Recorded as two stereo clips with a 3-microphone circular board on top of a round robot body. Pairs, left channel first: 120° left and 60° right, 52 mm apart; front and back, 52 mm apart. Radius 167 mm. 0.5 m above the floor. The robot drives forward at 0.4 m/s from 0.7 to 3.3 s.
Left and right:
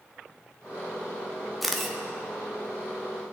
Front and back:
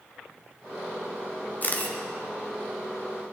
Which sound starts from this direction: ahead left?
A camera shutter, at 1.6 s.